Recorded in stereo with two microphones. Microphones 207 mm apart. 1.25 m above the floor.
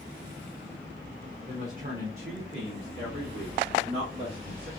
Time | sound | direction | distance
1.5 | a woman speaking | 35° right (ahead or behind) | 0.9 m